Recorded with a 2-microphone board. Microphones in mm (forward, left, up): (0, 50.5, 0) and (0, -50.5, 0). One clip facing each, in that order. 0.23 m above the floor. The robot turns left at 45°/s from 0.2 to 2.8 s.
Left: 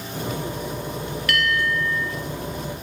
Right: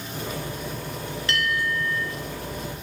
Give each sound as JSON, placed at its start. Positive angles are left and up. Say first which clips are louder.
{"t": 1.3, "sound": "a bell", "louder": "left 3 dB", "azimuth_deg": -155, "distance_m": 1.3}